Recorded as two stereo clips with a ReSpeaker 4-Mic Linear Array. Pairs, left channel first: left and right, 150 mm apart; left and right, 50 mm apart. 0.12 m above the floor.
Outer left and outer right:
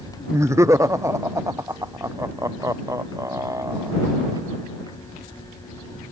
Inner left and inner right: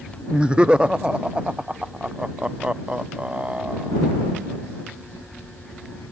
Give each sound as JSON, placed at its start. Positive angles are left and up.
{"t": 0.3, "sound": "laughter", "side_deg": -20}